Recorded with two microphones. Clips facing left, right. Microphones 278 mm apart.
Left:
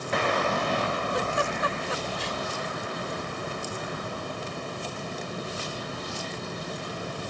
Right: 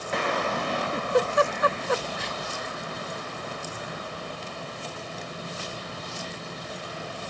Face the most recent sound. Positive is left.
turn(degrees=-65)  # may be behind; listen again after turning